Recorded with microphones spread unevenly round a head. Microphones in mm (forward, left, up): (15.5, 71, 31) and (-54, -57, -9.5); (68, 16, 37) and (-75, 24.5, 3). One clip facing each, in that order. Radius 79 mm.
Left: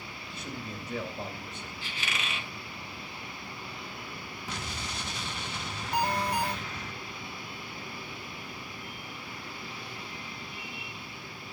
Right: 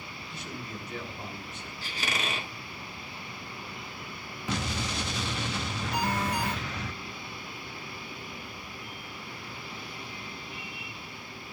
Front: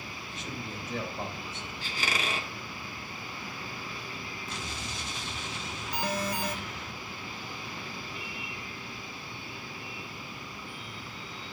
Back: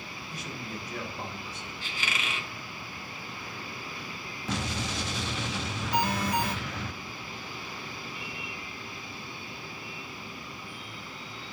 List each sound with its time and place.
0.3 s a man speaking: 65° left, 4.5 m
1.8 s a squeak: 60° right, 0.9 m
4.5 s an explosion: 145° right, 0.7 m
5.9 s an alarm: 5° right, 2.5 m